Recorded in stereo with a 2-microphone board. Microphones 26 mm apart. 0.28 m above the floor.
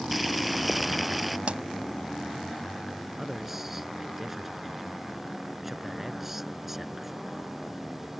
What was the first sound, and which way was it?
Boiling, 5° right (ahead or behind).